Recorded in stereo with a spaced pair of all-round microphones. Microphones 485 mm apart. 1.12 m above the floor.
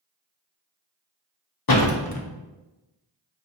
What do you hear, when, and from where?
1.7 s a door slam: 50° left (ahead or behind), 0.6 m